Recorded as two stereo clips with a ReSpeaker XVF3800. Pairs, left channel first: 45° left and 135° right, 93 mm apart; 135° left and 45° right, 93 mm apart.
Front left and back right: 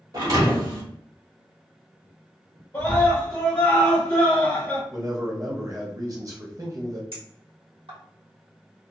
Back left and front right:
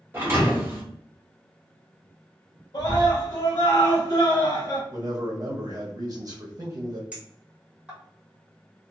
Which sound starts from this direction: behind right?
A clink, at 7.1 s.